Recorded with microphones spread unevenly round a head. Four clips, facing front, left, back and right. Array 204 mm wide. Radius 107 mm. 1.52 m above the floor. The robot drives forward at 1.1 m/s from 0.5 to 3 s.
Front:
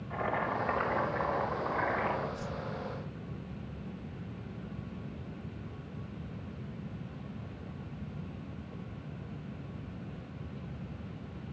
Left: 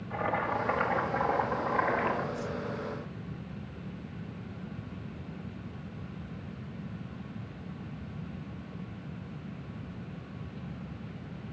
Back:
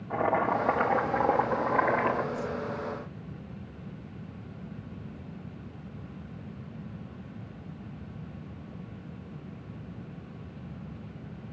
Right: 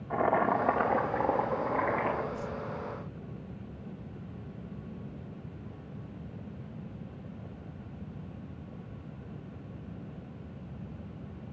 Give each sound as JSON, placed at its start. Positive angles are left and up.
{"t": 0.1, "sound": "boiling", "azimuth_deg": -130, "distance_m": 1.5}
{"t": 2.3, "sound": "a whoosh", "azimuth_deg": -140, "distance_m": 9.0}